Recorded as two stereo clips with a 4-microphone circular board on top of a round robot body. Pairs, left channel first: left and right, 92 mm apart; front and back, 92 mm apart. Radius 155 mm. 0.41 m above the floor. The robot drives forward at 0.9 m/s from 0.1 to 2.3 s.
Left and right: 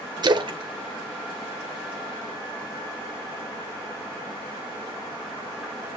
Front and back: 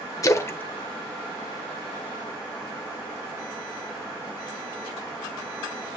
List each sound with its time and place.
0.2 s a splash: 50° right, 1.3 m; by 2.3 s 140° right, 1.5 m